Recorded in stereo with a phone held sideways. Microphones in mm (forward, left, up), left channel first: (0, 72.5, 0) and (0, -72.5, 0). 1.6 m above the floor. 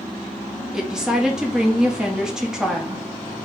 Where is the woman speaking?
5° right (ahead or behind), 1.1 m.